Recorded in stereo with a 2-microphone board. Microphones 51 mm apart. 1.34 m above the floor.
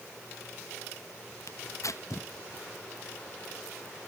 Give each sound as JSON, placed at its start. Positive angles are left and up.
{"t": 1.5, "sound": "tearing paper", "side_deg": 70, "distance_m": 1.0}